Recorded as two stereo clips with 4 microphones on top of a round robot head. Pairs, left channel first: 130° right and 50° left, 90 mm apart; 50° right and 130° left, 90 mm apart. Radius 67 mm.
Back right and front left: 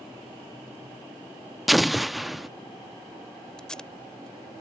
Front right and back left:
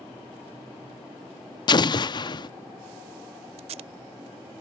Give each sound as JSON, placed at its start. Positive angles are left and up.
{"t": 1.7, "sound": "an explosion", "azimuth_deg": -40}
{"t": 3.6, "sound": "tape being pulled", "azimuth_deg": 145}